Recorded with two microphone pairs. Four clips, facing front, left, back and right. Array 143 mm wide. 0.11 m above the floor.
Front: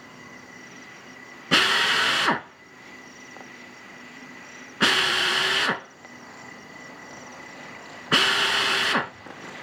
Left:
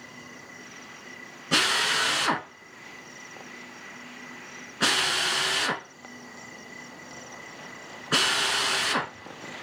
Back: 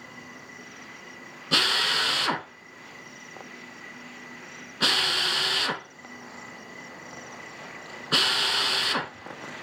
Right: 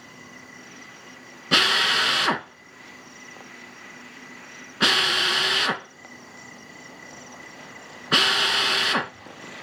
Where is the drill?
50° right, 0.7 m.